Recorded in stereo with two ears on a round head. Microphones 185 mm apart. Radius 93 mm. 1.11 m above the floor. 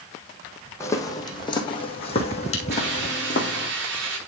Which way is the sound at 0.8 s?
15° left (ahead or behind).